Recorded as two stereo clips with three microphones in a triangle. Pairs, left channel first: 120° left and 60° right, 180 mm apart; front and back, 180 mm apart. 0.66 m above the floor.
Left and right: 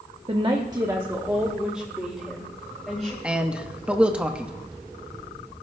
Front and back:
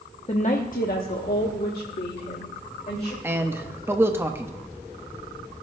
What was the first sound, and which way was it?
A woman speaking, 25° right.